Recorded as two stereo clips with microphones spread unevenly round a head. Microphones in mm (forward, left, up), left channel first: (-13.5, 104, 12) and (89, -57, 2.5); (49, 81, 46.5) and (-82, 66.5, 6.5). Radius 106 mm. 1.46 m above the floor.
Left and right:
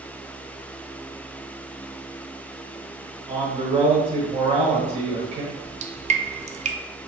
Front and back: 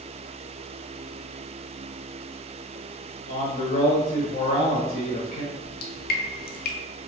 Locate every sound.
3.3 s a man speaking: 5° left, 2 m
5.5 s dripping: 5° right, 0.6 m